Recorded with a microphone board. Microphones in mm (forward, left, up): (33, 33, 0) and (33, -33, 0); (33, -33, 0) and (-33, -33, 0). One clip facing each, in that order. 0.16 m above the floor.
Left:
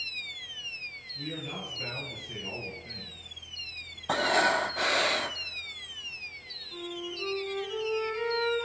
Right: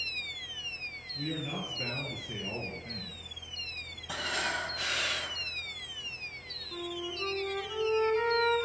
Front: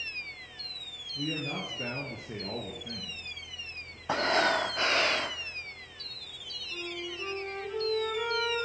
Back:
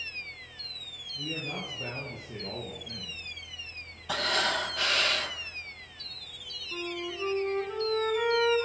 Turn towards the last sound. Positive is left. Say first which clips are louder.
# even, back 3 dB
turn(degrees=-130)